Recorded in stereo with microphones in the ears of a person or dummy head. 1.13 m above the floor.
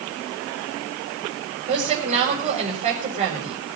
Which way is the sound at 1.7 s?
35° right (ahead or behind).